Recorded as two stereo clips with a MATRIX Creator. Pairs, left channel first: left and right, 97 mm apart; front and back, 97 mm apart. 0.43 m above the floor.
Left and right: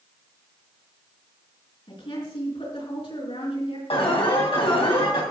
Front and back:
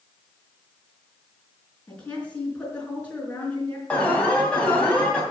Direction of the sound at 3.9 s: 75° left.